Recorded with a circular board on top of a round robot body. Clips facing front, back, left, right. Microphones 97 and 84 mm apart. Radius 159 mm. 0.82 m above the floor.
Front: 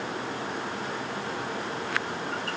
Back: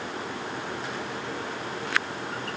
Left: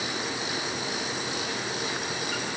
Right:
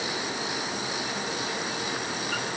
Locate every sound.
Only background noise.